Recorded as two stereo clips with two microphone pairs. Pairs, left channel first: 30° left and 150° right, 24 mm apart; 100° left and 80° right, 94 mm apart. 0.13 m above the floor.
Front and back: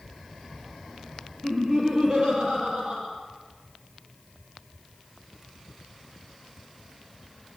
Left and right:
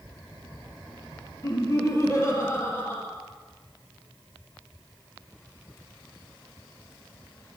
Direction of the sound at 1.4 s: 150° left.